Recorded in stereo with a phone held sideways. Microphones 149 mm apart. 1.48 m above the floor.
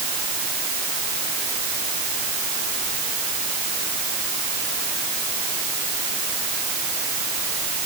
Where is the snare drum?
I don't hear a snare drum.